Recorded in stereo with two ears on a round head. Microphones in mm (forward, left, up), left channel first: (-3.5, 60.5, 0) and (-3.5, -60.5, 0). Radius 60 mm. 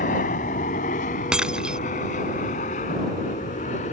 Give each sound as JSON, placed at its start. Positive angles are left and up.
{"t": 0.0, "sound": "an aircraft", "side_deg": 60}
{"t": 1.3, "sound": "breaking glass", "side_deg": -5}